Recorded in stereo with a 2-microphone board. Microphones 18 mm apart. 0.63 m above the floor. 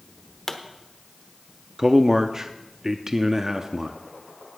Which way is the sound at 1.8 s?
25° right (ahead or behind).